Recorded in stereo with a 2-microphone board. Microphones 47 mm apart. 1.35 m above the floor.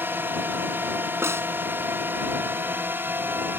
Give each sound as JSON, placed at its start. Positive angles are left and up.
{"t": 0.0, "sound": "a drone", "side_deg": -50}
{"t": 1.2, "sound": "a snare drum", "side_deg": -70}